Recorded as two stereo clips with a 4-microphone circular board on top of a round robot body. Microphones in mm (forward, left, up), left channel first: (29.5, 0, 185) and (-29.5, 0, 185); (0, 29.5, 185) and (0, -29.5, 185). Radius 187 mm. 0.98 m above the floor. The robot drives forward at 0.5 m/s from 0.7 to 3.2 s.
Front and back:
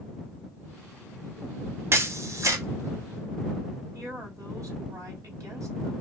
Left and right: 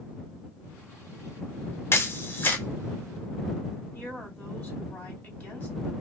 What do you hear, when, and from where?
1.9 s a camera shutter: 135° left, 0.8 m; by 2.6 s 150° left, 1.1 m
3.9 s a woman speaking: 150° left, 2 m